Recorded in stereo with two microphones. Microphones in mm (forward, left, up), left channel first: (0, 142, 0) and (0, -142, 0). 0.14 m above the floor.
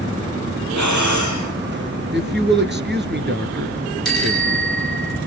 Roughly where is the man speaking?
Right.